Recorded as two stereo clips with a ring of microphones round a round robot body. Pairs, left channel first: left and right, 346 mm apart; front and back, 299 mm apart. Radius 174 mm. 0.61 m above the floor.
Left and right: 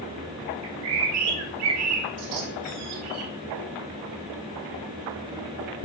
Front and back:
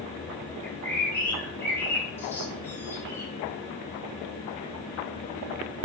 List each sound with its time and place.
0.6 s a bird: 85° right, 2.5 m